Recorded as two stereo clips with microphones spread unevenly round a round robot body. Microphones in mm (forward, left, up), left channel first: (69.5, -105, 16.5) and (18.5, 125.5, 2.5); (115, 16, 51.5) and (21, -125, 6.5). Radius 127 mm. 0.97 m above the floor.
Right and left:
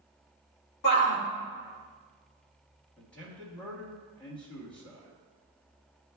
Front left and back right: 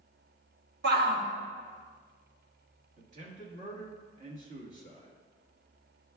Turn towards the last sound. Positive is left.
turn(degrees=-165)